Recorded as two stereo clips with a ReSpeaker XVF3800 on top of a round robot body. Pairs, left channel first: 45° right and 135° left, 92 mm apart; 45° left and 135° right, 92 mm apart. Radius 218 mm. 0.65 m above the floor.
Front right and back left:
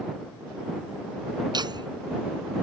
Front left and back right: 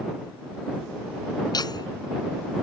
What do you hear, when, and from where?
1.5 s laughter: 90° left